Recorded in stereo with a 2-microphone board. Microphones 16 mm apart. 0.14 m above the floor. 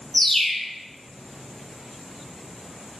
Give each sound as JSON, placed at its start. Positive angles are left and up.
{"t": 0.1, "sound": "a bird", "side_deg": 35, "distance_m": 0.6}